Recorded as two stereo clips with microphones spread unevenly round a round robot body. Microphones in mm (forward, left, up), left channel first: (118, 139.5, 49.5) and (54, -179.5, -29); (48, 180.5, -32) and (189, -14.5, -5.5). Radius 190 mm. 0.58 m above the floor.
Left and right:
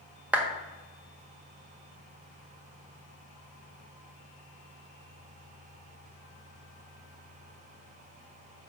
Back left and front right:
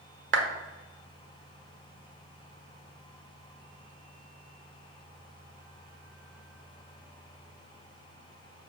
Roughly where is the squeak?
No squeak in this recording.